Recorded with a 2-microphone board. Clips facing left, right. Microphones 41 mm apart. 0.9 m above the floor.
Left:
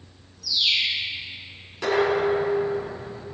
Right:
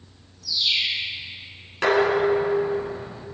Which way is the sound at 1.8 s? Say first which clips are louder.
Right 2 dB; 55° right (ahead or behind).